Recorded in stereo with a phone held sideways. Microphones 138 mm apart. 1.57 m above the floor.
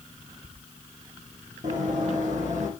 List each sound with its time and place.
1.6 s running footsteps: 70° right (ahead or behind), 4 m; by 2.7 s 65° right (ahead or behind), 3.5 m